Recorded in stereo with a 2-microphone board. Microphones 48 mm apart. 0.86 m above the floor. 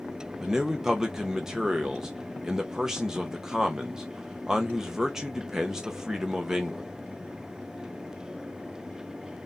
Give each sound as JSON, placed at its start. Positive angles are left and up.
{"t": 0.4, "sound": "a man speaking", "side_deg": -10, "distance_m": 0.9}